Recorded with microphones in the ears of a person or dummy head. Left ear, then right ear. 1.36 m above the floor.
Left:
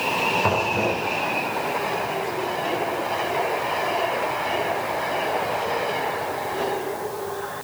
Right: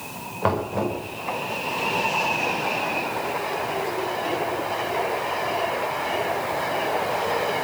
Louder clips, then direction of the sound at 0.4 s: Left 3 dB; 15° right (ahead or behind).